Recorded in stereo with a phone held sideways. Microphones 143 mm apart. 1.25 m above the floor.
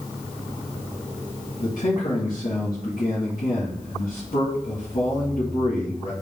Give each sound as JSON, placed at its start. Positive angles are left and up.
{"t": 1.6, "sound": "a man speaking", "side_deg": 80, "distance_m": 2.0}